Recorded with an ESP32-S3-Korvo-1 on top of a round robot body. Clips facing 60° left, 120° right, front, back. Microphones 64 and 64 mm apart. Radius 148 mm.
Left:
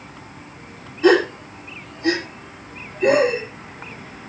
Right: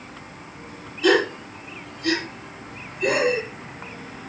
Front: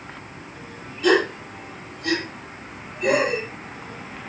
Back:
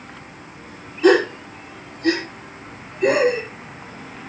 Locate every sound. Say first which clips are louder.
1.0 s a gasp: left 4 dB, back 4 dB; 120° left, 8 m